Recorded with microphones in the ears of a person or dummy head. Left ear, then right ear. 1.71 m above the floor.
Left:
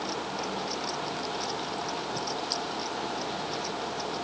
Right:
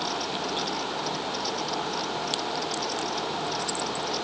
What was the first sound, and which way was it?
Only background noise.